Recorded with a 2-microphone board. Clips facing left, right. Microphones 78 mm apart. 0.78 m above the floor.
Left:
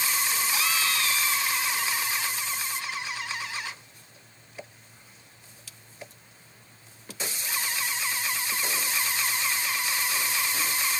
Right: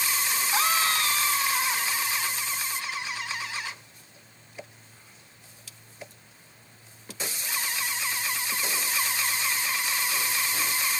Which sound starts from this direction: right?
A scream, at 0.5 s.